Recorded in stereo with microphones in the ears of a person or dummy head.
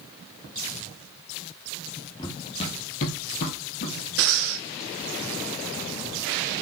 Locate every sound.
2.2 s running footsteps: 20° left (ahead or behind), 2 m; by 4.0 s 50° left (ahead or behind), 3 m
4.2 s breathing: 75° right (ahead or behind), 1.3 m